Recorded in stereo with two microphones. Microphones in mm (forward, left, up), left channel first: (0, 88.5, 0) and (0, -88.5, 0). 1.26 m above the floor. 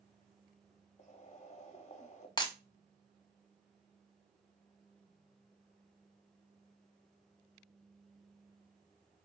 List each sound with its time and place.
1.0 s boiling: 40° left (ahead or behind), 0.5 m
2.4 s breaking glass: 25° left (ahead or behind), 0.6 m